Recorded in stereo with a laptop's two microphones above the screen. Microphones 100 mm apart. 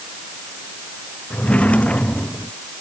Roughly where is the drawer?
Centre.